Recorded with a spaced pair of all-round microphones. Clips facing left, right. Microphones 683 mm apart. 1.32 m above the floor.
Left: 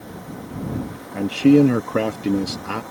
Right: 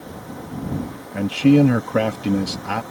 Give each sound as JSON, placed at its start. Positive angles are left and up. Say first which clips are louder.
{"t": 1.1, "sound": "a man speaking", "louder": "left 1 dB", "side_deg": -20}